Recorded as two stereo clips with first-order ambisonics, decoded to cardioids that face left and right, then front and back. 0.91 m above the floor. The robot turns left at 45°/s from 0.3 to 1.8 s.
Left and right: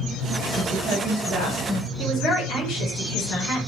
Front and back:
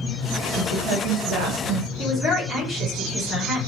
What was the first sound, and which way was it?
A woman speaking, 135° right.